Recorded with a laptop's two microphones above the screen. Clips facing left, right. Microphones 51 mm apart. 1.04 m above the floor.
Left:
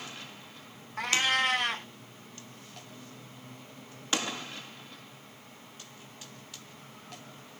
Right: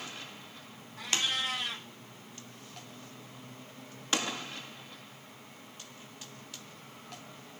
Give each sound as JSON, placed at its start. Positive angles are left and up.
{"t": 1.0, "sound": "a cat meowing", "side_deg": 60, "distance_m": 0.7}